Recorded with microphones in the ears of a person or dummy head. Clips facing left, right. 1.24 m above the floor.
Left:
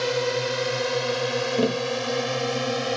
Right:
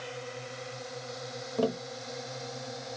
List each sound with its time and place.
0.0 s a drone: 75° left (ahead or behind)
1.6 s tapping: 25° left (ahead or behind)